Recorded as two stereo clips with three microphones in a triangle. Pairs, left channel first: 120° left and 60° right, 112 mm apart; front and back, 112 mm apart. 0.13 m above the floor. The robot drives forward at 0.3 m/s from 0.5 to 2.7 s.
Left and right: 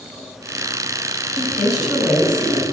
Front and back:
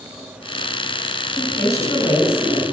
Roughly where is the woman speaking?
Ahead left.